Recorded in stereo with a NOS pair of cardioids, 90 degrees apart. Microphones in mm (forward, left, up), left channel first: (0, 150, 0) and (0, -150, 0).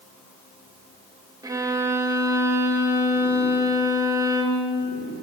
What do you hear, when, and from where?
1.4 s a violin: 10° right, 1.5 m